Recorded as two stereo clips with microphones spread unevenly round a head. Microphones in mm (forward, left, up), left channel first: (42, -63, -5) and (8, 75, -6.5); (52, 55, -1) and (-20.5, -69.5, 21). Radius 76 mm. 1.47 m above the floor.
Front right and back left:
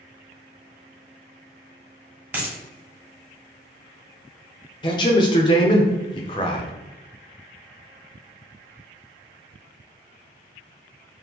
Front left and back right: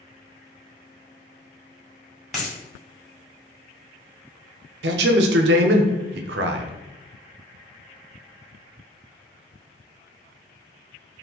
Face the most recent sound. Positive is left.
turn(degrees=-140)